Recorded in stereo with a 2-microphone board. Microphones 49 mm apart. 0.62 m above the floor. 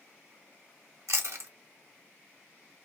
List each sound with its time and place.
1.1 s chewing: 65° right (ahead or behind), 1.0 m